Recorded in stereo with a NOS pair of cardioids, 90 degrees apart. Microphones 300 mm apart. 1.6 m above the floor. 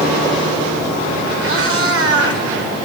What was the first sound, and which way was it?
A cat meowing, 50° right.